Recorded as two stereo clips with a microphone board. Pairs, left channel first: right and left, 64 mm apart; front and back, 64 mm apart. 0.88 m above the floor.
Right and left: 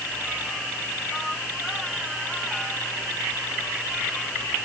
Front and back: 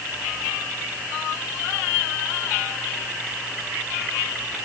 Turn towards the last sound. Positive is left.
No sound to turn to.